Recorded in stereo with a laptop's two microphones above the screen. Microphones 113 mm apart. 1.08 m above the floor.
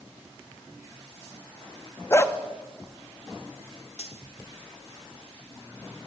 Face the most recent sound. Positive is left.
turn(degrees=70)  # may be behind; listen again after turning